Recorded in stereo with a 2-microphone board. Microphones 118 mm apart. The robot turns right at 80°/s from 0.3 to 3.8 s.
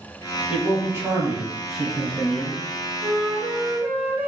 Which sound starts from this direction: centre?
A man speaking, at 0.5 s.